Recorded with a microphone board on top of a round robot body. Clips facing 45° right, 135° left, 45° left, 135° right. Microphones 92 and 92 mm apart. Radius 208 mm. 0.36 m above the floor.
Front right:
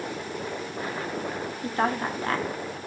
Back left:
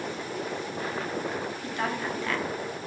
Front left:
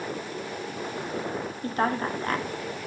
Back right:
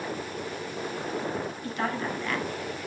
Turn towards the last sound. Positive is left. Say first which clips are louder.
# front right 7 dB, front left 6 dB
turn(degrees=0)